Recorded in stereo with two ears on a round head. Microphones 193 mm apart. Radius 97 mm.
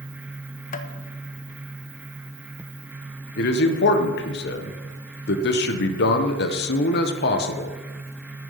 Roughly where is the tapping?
Left.